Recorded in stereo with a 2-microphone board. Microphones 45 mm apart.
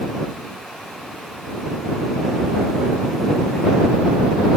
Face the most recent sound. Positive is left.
No sound to turn to.